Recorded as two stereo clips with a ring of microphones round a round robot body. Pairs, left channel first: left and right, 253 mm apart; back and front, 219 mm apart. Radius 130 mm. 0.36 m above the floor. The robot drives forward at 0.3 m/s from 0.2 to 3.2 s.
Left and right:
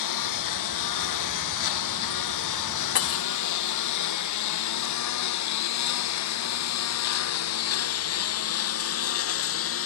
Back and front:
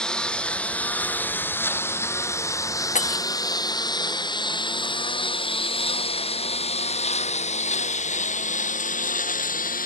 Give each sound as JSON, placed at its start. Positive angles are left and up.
{"t": 0.0, "sound": "a lawn mower", "azimuth_deg": 95}
{"t": 3.0, "sound": "breaking glass", "azimuth_deg": 125}